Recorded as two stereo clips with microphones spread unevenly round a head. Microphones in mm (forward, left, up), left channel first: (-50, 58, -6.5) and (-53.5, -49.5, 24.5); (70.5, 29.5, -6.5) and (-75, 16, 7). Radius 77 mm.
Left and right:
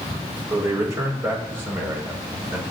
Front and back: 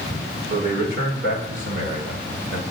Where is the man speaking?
155° right, 6.5 m; by 2.6 s 175° right, 7 m.